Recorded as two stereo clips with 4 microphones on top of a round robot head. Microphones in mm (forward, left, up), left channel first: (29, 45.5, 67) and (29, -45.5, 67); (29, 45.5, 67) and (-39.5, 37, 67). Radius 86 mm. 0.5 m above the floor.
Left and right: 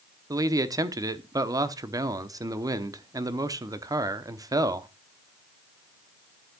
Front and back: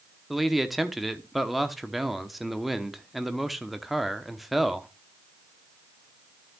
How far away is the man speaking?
About 1.0 m.